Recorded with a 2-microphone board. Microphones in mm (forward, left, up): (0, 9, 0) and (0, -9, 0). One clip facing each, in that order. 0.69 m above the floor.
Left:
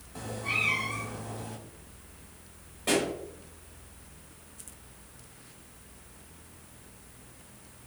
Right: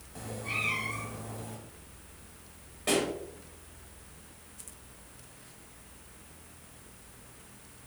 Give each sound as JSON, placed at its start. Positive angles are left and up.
{"t": 0.1, "sound": "a cat meowing", "side_deg": 20, "distance_m": 1.3}
{"t": 2.9, "sound": "a pop", "side_deg": -5, "distance_m": 3.0}